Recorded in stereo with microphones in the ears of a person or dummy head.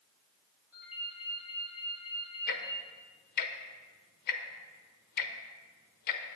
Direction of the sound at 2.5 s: 55° left (ahead or behind).